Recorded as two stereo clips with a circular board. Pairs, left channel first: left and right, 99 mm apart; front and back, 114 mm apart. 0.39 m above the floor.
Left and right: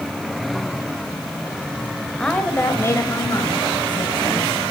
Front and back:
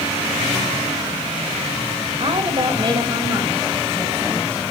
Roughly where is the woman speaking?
Behind.